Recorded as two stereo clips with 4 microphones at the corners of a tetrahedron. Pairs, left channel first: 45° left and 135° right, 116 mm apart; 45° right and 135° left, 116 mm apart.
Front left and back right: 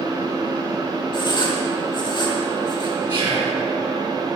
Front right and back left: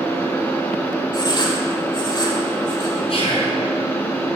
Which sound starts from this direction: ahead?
Writing, at 1.1 s.